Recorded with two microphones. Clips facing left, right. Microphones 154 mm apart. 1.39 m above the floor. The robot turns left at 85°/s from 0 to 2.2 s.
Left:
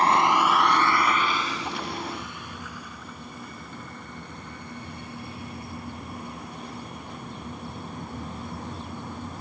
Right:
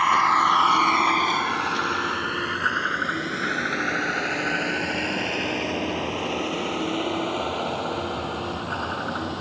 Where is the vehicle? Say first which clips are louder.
Left 1 dB; 35° left (ahead or behind); by 9.4 s 80° right.